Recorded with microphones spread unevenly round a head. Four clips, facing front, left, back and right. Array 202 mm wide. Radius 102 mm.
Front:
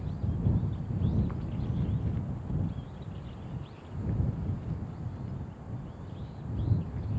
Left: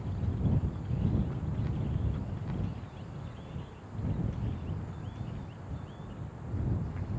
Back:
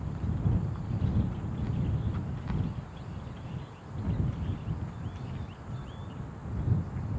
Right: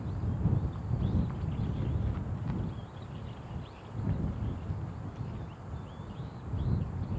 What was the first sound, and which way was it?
Only background noise.